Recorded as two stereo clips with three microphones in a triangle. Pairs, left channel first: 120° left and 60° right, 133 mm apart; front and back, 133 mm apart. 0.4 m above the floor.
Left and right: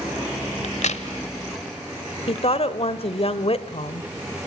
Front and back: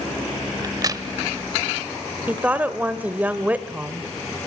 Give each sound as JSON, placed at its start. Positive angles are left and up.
{"t": 0.6, "sound": "a crack", "azimuth_deg": 120, "distance_m": 1.0}
{"t": 2.3, "sound": "a woman speaking", "azimuth_deg": 105, "distance_m": 1.3}